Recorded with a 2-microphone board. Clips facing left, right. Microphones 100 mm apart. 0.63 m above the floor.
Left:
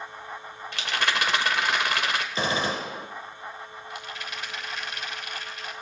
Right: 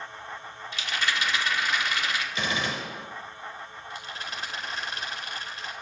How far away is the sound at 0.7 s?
About 2 m.